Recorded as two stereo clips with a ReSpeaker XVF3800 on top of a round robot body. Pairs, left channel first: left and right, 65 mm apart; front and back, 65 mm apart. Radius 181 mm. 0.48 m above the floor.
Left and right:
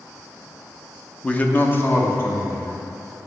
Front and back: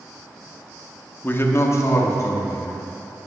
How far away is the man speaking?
About 0.7 m.